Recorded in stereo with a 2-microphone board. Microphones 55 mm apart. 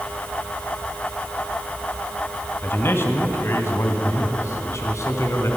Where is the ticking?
I don't hear ticking.